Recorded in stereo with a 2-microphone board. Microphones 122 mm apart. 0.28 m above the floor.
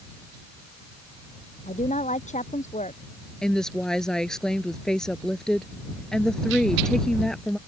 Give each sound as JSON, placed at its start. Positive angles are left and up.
{"t": 1.7, "sound": "a woman speaking", "side_deg": 80}
{"t": 3.4, "sound": "a woman speaking", "side_deg": 5}